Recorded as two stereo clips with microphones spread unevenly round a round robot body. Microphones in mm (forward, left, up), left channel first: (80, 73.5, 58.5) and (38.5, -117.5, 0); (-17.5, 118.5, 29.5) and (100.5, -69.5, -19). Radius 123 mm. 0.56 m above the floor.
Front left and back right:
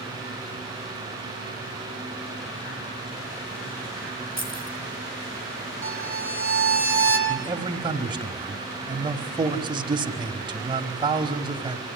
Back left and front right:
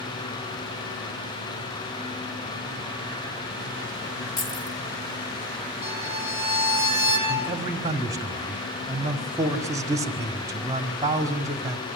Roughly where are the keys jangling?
Behind left.